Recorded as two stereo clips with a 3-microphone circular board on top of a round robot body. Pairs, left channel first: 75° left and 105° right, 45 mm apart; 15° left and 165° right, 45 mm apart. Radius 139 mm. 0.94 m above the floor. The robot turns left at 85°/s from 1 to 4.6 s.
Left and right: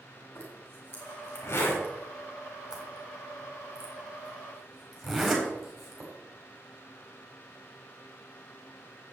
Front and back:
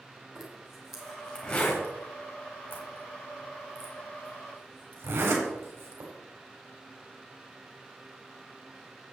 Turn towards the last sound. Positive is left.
turn(degrees=165)